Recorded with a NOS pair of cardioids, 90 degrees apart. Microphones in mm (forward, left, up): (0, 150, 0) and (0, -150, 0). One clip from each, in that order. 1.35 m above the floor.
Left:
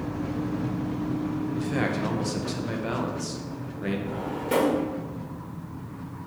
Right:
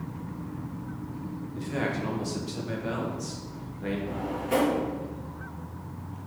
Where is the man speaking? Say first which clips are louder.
Left 1 dB; 20° left, 0.8 m.